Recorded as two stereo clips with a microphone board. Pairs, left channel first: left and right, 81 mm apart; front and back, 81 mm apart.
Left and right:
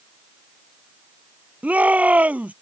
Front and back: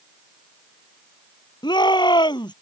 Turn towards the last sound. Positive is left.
turn(degrees=-20)